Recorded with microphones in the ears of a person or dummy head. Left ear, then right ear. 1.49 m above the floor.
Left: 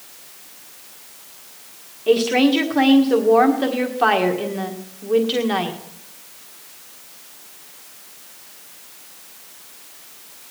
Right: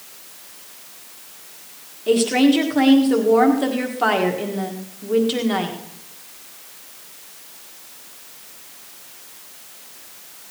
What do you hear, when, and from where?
2.1 s a woman speaking: 15° left (ahead or behind), 1.6 m